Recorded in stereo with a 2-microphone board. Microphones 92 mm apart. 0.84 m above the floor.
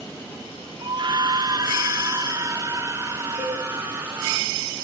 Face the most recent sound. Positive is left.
turn(degrees=50)  # may be behind; listen again after turning